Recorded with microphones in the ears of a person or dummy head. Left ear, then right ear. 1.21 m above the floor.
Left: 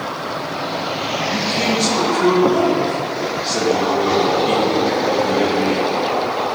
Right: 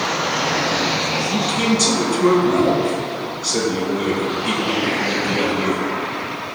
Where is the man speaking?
30° right (ahead or behind), 3 m.